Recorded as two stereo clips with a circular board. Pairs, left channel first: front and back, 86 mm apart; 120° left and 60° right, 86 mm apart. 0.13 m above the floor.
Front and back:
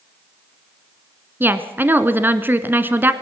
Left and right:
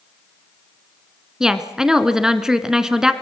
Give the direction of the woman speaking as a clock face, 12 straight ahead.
5 o'clock.